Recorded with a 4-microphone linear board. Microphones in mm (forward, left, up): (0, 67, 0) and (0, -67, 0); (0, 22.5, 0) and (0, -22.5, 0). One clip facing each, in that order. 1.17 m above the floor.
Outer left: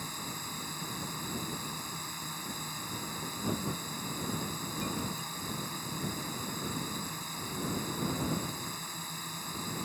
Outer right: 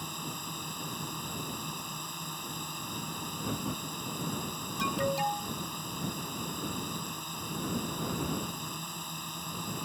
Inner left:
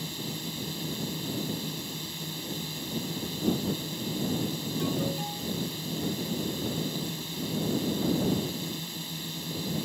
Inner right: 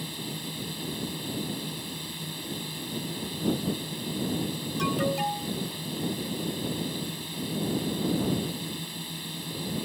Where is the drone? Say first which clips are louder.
Outer right 2 dB, even; 10° right (ahead or behind).